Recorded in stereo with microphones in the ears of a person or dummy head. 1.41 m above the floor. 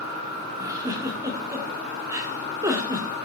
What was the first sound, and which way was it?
A giggle, 15° right (ahead or behind).